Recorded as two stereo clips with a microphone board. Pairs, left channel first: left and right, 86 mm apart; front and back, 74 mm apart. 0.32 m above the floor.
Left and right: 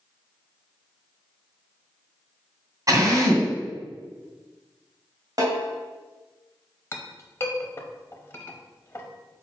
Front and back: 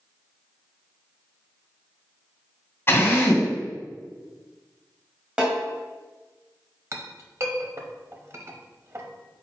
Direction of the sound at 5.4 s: 105° right.